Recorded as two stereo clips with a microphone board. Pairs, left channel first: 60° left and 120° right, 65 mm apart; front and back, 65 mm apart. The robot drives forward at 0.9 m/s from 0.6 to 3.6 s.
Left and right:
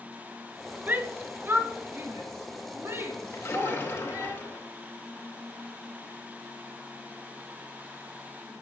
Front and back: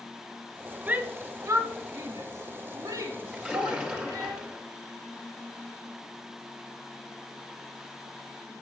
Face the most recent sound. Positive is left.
turn(degrees=115)